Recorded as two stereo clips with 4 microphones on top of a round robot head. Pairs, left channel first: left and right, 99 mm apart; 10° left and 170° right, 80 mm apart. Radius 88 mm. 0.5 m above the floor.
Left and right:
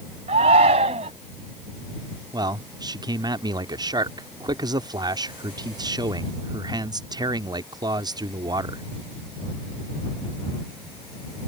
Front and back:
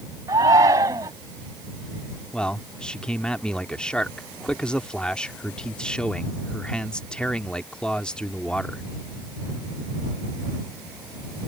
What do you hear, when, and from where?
0.3 s a shout: 115° right
2.3 s a man speaking: 65° right